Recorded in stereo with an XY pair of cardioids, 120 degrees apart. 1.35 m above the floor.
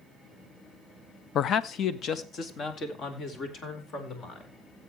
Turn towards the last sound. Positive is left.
turn(degrees=50)